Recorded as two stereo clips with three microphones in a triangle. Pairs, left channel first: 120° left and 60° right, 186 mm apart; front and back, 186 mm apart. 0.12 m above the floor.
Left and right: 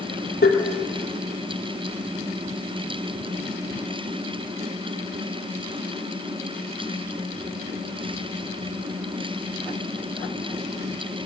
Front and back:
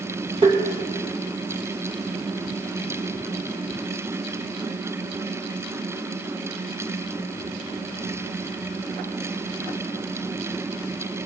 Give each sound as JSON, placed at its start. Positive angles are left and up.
{"t": 0.4, "sound": "tapping", "azimuth_deg": 125, "distance_m": 3.0}